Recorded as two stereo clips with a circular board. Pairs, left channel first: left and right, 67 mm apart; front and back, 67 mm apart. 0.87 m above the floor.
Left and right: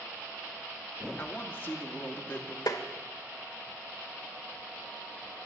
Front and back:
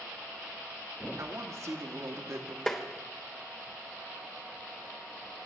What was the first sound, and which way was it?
A woman speaking, 150° left.